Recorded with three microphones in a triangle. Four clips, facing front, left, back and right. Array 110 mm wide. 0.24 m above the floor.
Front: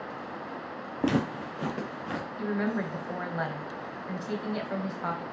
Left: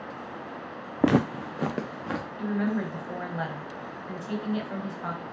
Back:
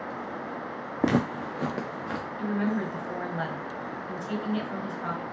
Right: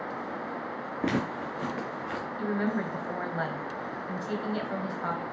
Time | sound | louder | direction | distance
1.0 | footsteps | left 7 dB, back 2 dB | 105° left | 0.6 m
2.4 | a woman speaking | left 1 dB, back 2 dB | 30° right | 0.9 m